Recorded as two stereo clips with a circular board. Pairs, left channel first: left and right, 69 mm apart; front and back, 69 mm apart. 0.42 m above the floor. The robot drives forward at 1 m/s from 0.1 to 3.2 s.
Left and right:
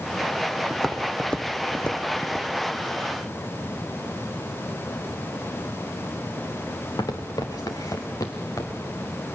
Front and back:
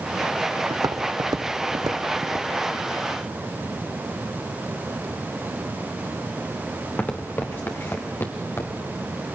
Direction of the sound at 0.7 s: 175° left.